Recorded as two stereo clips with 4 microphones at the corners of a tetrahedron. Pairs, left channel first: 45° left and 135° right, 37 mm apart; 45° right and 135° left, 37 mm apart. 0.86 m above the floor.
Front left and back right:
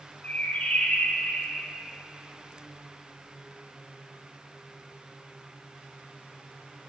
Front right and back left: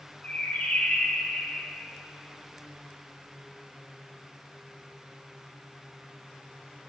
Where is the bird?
5° left, 1.4 m.